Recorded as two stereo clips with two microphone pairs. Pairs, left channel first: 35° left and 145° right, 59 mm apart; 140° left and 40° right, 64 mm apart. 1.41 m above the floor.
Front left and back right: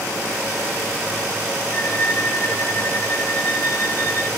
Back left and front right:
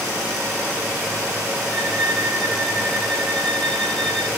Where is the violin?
60° left, 3 m.